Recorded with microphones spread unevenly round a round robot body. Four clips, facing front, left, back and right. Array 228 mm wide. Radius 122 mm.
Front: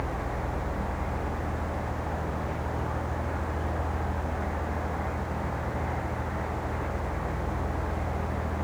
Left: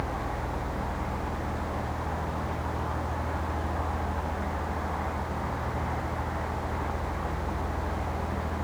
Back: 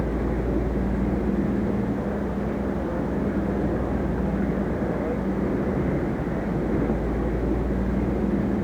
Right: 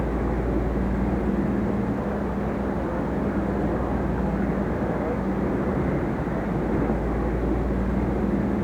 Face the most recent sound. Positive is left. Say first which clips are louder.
# right 7 dB, back 7 dB
turn(degrees=-135)